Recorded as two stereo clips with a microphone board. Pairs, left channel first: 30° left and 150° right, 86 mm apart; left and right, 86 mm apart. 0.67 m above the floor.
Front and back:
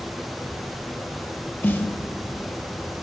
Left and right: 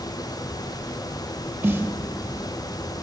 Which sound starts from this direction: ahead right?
A snare drum, at 1.6 s.